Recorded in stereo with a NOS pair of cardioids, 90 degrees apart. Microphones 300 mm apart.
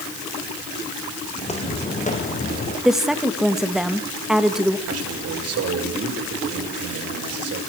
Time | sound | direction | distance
1.4 | footsteps | 20° left | 4.5 m
2.9 | a woman speaking | straight ahead | 1.8 m
4.9 | a man speaking | 55° right | 7 m